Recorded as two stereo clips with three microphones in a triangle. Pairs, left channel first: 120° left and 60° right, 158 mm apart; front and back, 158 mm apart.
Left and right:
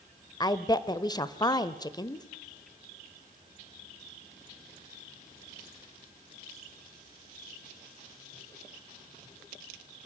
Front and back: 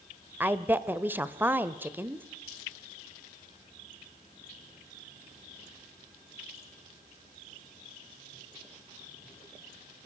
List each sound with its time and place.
0.4 s a woman speaking: 120° left, 0.9 m